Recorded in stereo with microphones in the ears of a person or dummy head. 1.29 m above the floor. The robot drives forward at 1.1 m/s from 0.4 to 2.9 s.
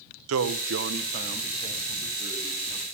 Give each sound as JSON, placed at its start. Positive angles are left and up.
{"t": 0.3, "sound": "a man speaking", "side_deg": -80, "distance_m": 0.7}